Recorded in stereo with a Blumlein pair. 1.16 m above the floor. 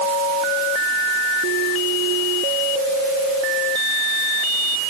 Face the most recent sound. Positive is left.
No sound to turn to.